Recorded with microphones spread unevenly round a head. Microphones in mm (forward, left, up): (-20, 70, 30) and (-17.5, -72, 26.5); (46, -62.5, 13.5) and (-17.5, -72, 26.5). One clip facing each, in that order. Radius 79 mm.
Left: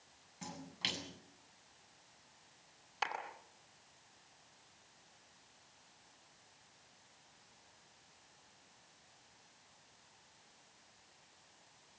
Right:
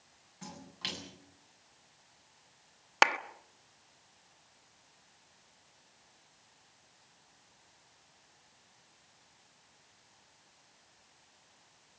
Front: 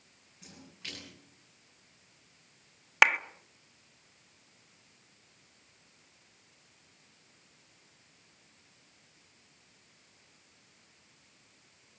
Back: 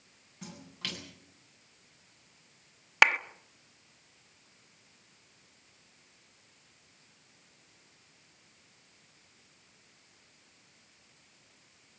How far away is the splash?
About 8.5 m.